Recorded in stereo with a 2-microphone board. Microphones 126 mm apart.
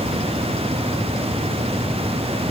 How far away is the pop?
No pop in this recording.